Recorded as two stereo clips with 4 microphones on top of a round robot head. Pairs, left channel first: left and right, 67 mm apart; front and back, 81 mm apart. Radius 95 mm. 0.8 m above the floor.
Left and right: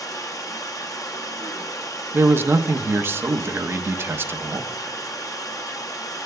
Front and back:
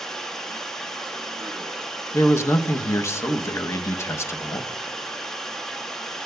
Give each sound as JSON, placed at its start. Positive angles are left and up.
{"t": 0.0, "sound": "running water", "azimuth_deg": 80, "distance_m": 1.1}
{"t": 2.1, "sound": "a man speaking", "azimuth_deg": -45, "distance_m": 0.7}